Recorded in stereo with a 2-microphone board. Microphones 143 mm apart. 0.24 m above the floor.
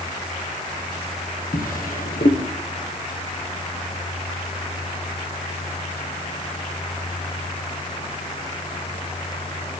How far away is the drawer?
About 3 m.